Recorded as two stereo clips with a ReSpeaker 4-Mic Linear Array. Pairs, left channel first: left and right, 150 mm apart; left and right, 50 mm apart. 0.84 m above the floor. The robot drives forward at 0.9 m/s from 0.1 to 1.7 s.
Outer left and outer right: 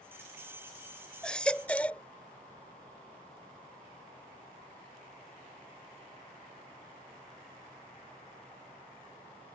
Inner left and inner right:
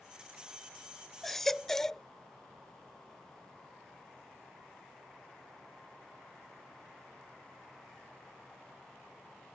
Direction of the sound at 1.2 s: 5° left (ahead or behind).